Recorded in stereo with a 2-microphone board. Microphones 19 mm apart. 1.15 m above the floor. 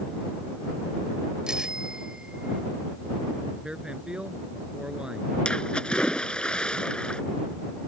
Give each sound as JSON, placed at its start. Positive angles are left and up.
{"t": 1.5, "sound": "a bicycle bell", "side_deg": -45}
{"t": 3.6, "sound": "a man speaking", "side_deg": -50}
{"t": 5.5, "sound": "a splash", "side_deg": 55}